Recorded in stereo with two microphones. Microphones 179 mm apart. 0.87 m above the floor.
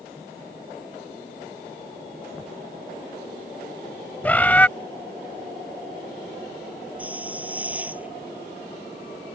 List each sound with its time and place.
4.2 s a bird: 10° left (ahead or behind)
7.0 s a hiss: 10° right (ahead or behind)